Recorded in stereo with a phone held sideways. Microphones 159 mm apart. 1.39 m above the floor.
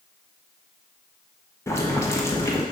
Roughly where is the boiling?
Centre.